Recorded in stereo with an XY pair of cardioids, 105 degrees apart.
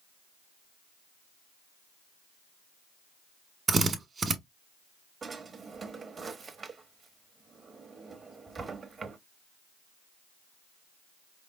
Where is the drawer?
40° right, 1.0 m.